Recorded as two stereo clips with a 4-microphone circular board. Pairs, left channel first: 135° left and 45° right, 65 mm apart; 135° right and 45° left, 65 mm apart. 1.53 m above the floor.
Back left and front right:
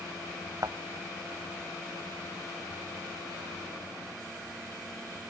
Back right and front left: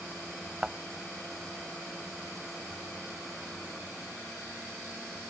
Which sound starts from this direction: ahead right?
A thud, at 0.6 s.